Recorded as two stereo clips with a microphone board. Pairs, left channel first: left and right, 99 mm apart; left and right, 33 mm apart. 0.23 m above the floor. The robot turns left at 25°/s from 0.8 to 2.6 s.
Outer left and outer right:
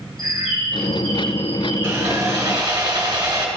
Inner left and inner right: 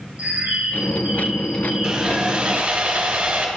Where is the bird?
135° right, 3 m; by 2.1 s 170° right, 3 m.